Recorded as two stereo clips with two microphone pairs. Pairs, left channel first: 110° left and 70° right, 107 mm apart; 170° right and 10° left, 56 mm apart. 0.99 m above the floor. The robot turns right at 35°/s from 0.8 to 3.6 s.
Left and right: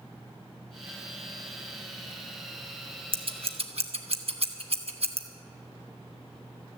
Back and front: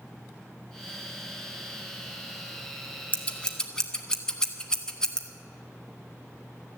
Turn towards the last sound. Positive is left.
turn(degrees=-90)